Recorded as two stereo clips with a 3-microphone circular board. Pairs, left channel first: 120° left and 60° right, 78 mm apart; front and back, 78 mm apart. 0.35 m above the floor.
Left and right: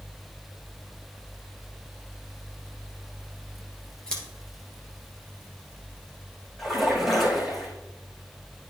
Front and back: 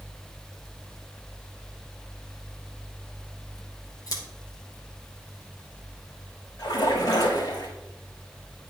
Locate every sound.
4.1 s scissors: 40° left, 3 m
6.6 s a splash: 35° left, 3.5 m